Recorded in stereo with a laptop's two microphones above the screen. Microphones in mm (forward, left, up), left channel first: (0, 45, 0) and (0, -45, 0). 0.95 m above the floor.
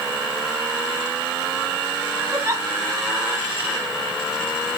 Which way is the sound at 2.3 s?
30° right (ahead or behind).